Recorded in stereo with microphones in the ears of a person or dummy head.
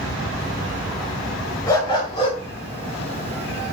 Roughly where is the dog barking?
Centre.